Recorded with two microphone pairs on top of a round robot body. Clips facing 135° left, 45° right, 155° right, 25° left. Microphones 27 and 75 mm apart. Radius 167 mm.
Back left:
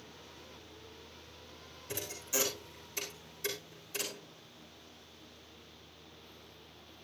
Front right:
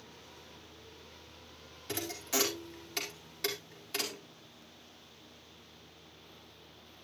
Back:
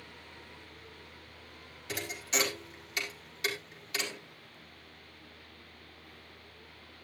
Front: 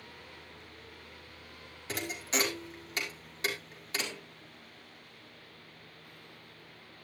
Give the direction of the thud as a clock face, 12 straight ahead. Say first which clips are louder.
Front right 3 dB, front 1 dB; 1 o'clock.